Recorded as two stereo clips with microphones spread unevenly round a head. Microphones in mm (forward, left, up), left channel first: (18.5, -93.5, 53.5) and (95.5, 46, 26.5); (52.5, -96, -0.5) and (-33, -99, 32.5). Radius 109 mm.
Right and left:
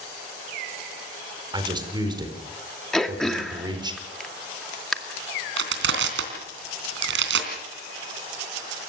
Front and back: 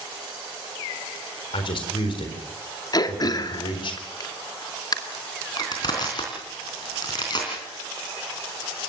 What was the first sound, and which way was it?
A man speaking, straight ahead.